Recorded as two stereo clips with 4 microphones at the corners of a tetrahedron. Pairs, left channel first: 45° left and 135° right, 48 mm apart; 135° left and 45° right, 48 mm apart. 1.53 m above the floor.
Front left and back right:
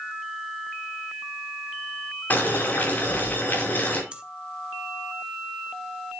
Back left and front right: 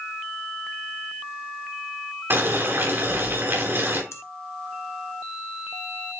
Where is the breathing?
155° left, 1.4 m.